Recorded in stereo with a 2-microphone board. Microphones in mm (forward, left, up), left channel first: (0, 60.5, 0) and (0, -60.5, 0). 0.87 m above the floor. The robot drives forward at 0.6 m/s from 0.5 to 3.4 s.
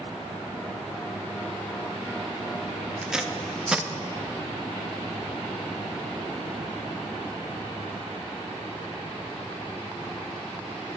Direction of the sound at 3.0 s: 5° right (ahead or behind).